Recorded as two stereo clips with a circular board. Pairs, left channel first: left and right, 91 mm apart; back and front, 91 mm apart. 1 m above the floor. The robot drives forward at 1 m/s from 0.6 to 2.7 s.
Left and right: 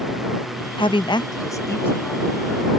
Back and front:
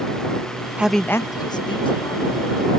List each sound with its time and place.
0.8 s a woman speaking: 75° left; by 2.8 s 165° left